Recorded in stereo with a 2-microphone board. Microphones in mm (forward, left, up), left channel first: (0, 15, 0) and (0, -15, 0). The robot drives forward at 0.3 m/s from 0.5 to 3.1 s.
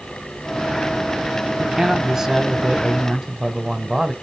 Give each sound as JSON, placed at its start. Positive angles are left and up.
{"t": 1.6, "sound": "a man speaking", "side_deg": -15, "distance_m": 1.0}